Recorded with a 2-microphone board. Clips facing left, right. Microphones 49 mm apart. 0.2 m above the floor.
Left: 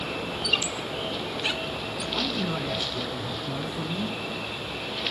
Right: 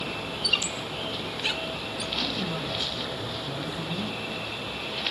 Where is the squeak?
5° left (ahead or behind), 0.6 m.